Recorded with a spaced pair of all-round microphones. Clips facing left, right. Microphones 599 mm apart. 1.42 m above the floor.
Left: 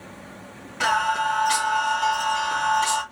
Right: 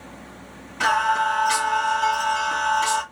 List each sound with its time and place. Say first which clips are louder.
0.8 s singing: right 2 dB; centre (ahead or behind), 1.9 m